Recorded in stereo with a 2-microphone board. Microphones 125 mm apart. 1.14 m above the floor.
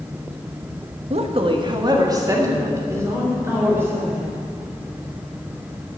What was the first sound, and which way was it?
A woman speaking, 55° right (ahead or behind).